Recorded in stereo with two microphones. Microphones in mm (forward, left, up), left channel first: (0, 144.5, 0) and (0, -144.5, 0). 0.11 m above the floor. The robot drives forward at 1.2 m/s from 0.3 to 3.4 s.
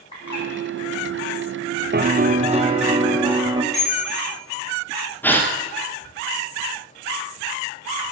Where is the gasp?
5° left (ahead or behind), 1.6 m.